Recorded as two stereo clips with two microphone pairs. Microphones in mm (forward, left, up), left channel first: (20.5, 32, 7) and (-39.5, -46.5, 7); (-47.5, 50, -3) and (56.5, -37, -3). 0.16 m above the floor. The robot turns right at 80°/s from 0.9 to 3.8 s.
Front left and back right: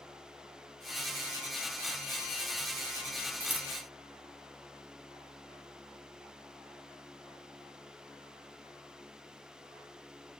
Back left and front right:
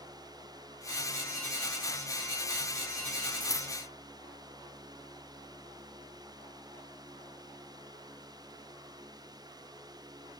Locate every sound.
3.4 s scissors: 170° left, 1.1 m; by 3.7 s 165° right, 1.1 m